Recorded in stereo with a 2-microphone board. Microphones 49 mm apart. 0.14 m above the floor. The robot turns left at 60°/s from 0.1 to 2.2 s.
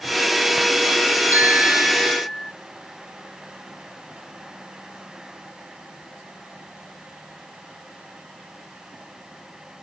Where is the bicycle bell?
140° right; by 2.5 s 165° left.